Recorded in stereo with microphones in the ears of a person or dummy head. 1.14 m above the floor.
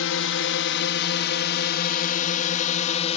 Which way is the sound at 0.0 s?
65° left (ahead or behind).